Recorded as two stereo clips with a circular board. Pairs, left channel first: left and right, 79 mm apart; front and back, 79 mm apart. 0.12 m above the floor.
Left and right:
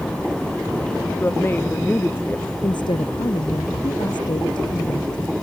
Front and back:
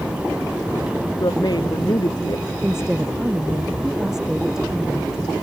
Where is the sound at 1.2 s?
30° left.